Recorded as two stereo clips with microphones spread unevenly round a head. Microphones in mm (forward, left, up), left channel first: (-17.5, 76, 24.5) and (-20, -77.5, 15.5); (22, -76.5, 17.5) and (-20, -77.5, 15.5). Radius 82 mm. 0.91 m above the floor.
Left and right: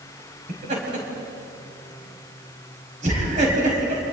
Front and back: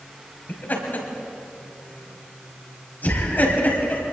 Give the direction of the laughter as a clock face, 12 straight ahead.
1 o'clock.